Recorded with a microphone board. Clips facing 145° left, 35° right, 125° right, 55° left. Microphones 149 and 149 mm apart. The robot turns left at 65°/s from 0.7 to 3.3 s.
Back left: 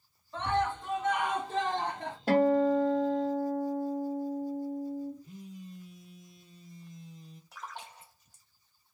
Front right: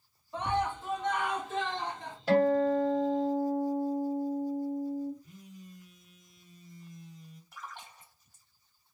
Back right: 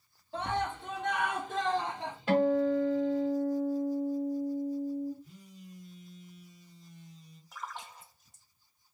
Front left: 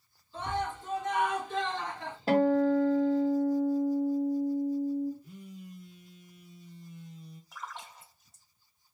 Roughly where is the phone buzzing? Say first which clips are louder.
Back left 5 dB, front left 5 dB; left.